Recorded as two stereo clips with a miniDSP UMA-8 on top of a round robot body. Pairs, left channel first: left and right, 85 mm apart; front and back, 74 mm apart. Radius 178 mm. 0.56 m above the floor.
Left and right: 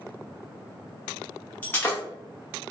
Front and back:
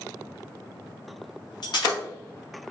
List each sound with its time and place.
1.6 s breaking glass: 20° left, 1.4 m